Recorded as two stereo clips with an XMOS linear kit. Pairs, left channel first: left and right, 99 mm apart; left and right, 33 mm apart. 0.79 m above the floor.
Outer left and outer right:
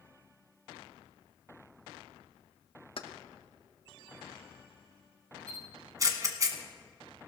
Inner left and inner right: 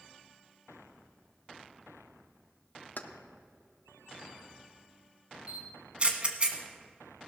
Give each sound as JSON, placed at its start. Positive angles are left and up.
{"t": 3.0, "sound": "keys jangling", "side_deg": 65, "distance_m": 0.7}
{"t": 5.5, "sound": "a camera shutter", "side_deg": -35, "distance_m": 1.4}